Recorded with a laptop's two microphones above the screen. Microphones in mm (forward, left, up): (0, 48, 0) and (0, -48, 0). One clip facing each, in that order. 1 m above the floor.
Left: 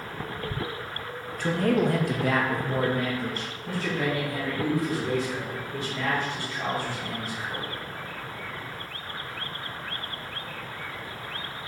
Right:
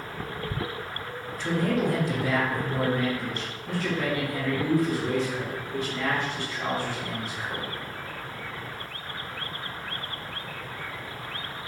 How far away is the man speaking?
About 1.0 m.